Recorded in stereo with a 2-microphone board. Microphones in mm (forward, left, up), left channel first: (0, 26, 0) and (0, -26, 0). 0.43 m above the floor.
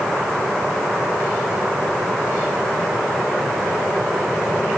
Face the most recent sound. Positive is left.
No sound to turn to.